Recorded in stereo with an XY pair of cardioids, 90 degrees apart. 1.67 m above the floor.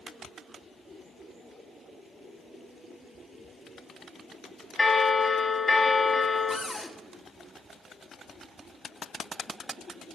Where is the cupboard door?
25° left, 1.5 m.